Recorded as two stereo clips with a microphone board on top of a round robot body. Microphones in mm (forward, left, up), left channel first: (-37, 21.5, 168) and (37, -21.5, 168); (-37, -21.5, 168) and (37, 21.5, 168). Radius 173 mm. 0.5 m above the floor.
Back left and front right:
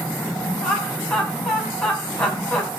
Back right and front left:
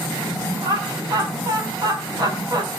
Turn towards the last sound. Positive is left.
turn(degrees=70)